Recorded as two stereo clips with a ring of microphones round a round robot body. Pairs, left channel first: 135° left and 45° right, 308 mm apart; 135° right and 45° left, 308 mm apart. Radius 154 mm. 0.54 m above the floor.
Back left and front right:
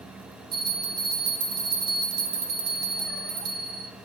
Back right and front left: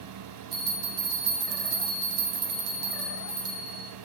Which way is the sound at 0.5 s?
10° left.